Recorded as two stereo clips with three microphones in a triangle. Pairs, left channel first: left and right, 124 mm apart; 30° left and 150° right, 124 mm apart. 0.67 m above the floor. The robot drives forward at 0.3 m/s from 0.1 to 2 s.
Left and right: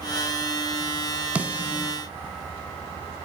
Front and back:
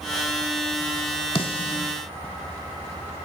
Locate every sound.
1.4 s a snare drum: 10° right, 1.3 m; by 1.9 s 15° right, 1.2 m